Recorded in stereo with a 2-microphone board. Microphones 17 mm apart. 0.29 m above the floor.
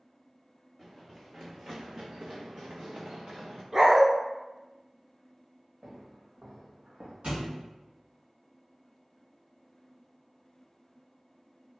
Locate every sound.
0.8 s running footsteps: 20° right (ahead or behind), 1.0 m; by 3.6 s 65° right (ahead or behind), 1.3 m
3.7 s a dog barking: 20° right (ahead or behind), 0.9 m
5.8 s footsteps: 75° right (ahead or behind), 1.7 m; by 7.1 s 70° right (ahead or behind), 0.9 m
7.2 s a thud: 65° right (ahead or behind), 1.5 m